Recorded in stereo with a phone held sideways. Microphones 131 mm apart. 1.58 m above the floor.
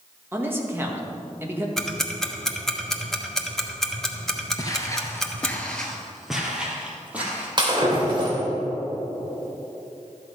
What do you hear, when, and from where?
0.3 s a man speaking: 15° right (ahead or behind), 1.6 m
1.8 s ticking: 5° left (ahead or behind), 1.0 m
4.6 s footsteps: 30° left (ahead or behind), 1.8 m; by 7.5 s 10° right (ahead or behind), 3.5 m
7.6 s breaking glass: 35° right (ahead or behind), 3 m